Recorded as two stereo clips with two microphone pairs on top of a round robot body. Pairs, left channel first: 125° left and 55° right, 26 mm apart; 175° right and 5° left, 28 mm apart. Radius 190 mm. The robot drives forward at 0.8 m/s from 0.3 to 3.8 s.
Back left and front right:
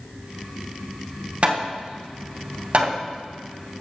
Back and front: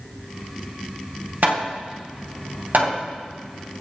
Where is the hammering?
15° right, 4.5 m; by 3.0 s 20° right, 3 m.